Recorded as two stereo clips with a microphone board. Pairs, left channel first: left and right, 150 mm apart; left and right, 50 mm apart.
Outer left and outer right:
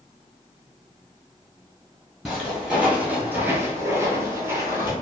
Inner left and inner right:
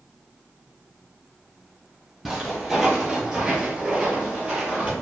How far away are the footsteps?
About 1.3 m.